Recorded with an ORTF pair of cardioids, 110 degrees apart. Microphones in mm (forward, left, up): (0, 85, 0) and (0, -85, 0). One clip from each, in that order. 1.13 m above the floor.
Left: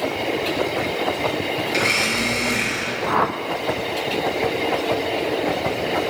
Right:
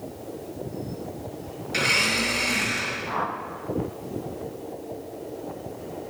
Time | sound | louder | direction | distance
1.7 | a blender | left 1 dB | straight ahead | 5.5 m
3.1 | a whoosh | left 8 dB | 35° left | 0.8 m